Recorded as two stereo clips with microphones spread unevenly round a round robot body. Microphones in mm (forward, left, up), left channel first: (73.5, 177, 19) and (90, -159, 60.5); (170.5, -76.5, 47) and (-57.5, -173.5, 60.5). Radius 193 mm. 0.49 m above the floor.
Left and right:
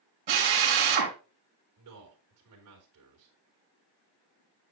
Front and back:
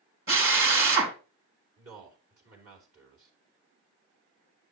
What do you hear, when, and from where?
0.3 s a drill: 120° right, 2.5 m
1.8 s a man speaking: 140° right, 3 m